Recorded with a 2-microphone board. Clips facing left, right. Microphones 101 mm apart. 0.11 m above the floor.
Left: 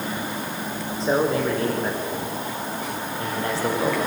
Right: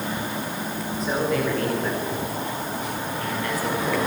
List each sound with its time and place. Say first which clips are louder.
1.0 s a man speaking: left 3 dB; 30° left (ahead or behind), 7.5 m